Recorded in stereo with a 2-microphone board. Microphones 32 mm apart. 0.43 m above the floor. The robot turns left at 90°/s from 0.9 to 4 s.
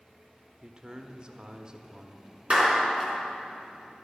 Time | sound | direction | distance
0.6 | a man speaking | 50° right | 0.8 m
2.5 | a clap | 45° right (ahead or behind) | 4 m